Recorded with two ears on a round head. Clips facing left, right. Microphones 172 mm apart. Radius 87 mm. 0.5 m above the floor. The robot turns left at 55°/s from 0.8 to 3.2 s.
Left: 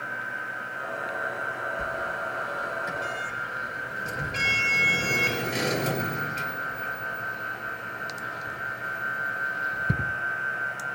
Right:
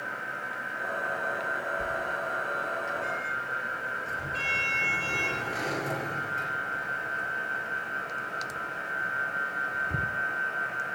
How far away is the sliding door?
About 4 m.